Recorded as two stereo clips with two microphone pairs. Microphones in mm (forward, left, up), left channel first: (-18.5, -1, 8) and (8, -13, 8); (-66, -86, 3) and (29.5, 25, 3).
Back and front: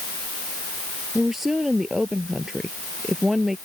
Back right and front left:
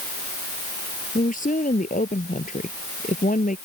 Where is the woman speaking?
110° right.